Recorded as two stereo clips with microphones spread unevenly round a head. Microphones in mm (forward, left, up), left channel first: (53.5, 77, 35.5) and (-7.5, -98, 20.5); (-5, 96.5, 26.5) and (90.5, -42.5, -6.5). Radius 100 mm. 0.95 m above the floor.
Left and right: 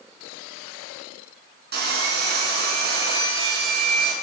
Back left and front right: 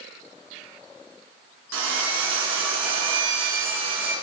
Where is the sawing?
75° right, 8 m.